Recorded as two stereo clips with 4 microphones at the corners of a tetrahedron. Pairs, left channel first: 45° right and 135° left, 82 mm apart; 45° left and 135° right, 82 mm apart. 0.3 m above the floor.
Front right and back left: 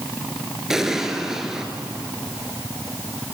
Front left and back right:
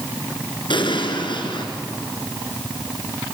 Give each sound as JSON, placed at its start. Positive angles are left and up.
{"t": 0.7, "sound": "an explosion", "azimuth_deg": 50, "distance_m": 2.5}